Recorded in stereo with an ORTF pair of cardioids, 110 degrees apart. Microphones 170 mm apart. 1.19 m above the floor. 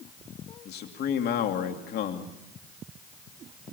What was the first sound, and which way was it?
A man speaking, 65° left.